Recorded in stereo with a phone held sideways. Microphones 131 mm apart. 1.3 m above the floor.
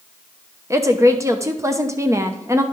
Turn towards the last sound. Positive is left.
turn(degrees=-25)  # may be behind; listen again after turning